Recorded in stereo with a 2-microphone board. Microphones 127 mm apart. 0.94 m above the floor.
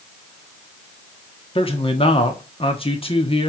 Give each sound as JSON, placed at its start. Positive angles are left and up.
{"t": 1.6, "sound": "a man speaking", "side_deg": 45, "distance_m": 1.4}